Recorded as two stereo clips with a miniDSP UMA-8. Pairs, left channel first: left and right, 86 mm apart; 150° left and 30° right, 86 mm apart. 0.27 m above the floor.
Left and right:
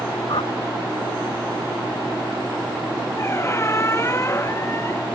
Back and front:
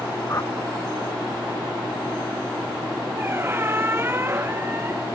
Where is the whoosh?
95° left.